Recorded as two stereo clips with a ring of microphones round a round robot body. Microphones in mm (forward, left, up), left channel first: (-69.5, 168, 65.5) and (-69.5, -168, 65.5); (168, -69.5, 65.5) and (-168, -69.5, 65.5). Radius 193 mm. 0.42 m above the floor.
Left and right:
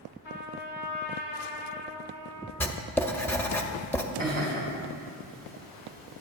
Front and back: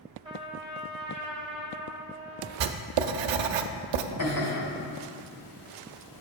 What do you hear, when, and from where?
0.2 s a trumpet: 100° left, 2 m
2.6 s writing: 175° left, 0.5 m
4.2 s laughter: 20° left, 2.5 m